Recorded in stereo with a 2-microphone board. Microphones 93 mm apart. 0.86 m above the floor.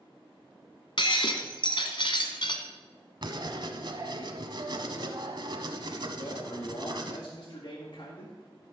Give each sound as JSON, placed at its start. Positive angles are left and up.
{"t": 1.0, "sound": "breaking glass", "side_deg": 65, "distance_m": 1.4}
{"t": 3.2, "sound": "writing", "side_deg": -55, "distance_m": 1.1}
{"t": 6.2, "sound": "a man speaking", "side_deg": 60, "distance_m": 1.8}